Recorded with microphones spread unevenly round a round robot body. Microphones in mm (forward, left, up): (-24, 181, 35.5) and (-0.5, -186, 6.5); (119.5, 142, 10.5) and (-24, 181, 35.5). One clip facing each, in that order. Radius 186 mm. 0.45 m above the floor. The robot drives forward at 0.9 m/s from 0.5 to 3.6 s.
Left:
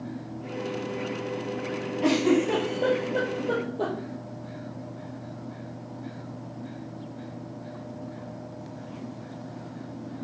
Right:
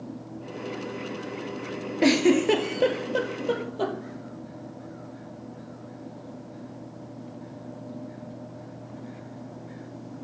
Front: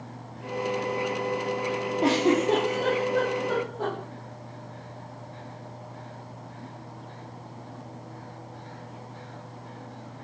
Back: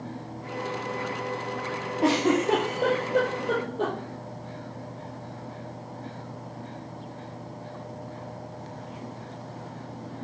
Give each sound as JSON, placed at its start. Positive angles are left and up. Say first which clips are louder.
{"t": 2.0, "sound": "a giggle", "louder": "right 2 dB, even", "azimuth_deg": -100, "distance_m": 1.6}